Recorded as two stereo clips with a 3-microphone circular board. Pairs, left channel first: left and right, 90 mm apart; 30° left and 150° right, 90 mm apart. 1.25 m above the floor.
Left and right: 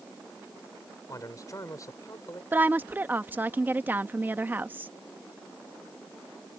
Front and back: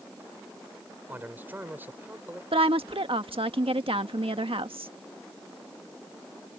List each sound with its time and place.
1.1 s a man speaking: 140° left
2.5 s a woman speaking: 160° right